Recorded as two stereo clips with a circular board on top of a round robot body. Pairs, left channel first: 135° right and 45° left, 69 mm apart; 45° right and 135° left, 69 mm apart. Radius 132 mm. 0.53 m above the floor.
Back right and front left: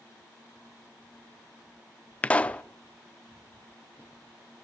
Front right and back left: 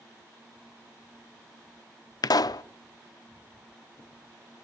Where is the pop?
65° right, 0.6 m.